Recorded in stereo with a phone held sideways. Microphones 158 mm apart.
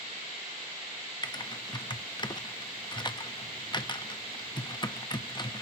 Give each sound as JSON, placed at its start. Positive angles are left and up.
{"t": 1.2, "sound": "typing on a keyboard", "side_deg": 30, "distance_m": 0.7}